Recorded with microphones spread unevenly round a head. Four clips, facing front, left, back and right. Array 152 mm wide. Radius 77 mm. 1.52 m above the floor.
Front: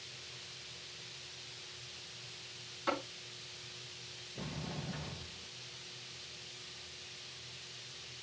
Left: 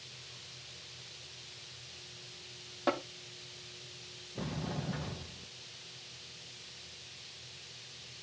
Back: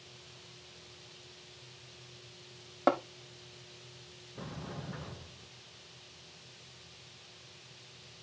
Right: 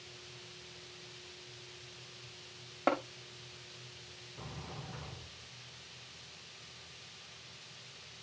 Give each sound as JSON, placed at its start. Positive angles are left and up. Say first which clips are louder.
{"t": 2.9, "sound": "tapping", "louder": "right 1 dB, back 8 dB", "azimuth_deg": -175, "distance_m": 1.2}
{"t": 4.3, "sound": "a sliding door", "louder": "left 9 dB, even", "azimuth_deg": 85, "distance_m": 0.9}